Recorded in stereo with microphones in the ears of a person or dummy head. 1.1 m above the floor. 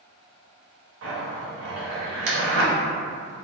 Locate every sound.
1.0 s a zipper: 70° right (ahead or behind), 1.0 m